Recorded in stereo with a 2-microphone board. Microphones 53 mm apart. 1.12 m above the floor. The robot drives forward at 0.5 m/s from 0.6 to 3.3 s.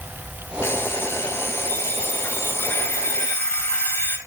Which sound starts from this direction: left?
An alarm clock, at 0.6 s.